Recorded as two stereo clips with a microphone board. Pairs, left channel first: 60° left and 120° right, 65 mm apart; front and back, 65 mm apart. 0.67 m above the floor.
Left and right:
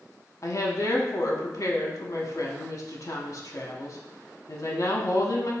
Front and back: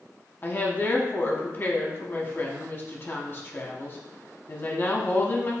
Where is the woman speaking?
45° left, 0.8 m.